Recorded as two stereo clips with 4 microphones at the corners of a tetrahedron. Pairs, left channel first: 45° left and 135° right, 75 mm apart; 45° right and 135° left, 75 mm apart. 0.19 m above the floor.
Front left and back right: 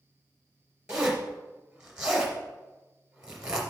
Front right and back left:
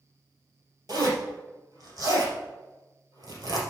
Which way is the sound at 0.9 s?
145° left.